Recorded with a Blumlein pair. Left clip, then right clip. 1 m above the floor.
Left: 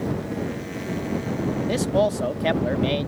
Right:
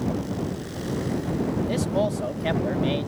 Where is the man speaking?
10° left.